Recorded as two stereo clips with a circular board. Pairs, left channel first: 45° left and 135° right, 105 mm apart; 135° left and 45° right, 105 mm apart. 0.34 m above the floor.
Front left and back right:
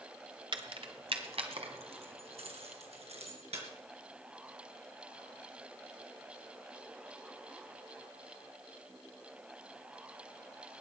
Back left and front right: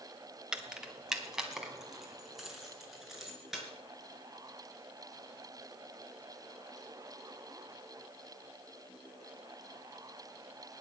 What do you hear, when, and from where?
0.5 s keys jangling: 125° right, 1.3 m; by 3.6 s 130° right, 4.5 m